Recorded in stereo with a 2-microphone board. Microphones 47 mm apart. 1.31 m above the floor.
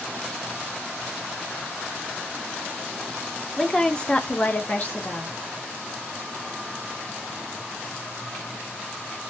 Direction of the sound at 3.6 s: 5° left (ahead or behind).